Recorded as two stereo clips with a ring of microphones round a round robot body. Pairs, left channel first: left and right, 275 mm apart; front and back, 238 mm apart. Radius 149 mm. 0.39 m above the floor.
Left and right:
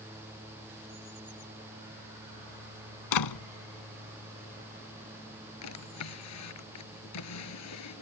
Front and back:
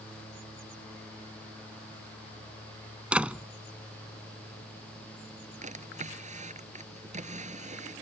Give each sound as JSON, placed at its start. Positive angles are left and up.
{"t": 3.1, "sound": "a door slam", "azimuth_deg": 95}
{"t": 5.6, "sound": "a drawer", "azimuth_deg": 120}